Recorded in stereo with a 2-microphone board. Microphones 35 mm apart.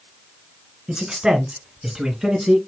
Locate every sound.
0.9 s a man speaking: 25° right (ahead or behind), 2 m; by 2.6 s 5° right (ahead or behind), 1.8 m